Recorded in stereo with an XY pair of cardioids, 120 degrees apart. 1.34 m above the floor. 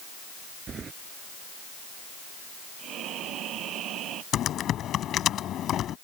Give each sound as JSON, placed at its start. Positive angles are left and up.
{"t": 0.7, "sound": "keys jangling", "azimuth_deg": -35}
{"t": 2.8, "sound": "breathing", "azimuth_deg": -65}
{"t": 4.3, "sound": "typing on a keyboard", "azimuth_deg": 60}